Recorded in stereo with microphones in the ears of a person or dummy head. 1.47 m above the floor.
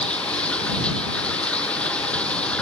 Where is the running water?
5° left (ahead or behind).